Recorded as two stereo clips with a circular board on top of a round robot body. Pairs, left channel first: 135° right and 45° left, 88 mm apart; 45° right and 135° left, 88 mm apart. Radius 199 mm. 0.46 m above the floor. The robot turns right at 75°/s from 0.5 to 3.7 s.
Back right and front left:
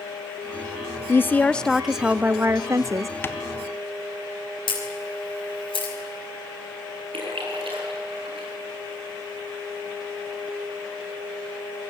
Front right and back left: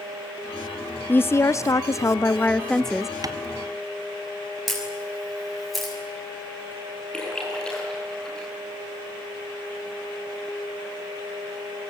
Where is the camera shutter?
135° right, 6.5 m.